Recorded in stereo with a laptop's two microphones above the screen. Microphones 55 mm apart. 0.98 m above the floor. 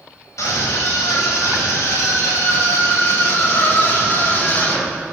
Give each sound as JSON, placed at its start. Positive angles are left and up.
{"t": 0.4, "sound": "a scream", "side_deg": 80, "distance_m": 5.0}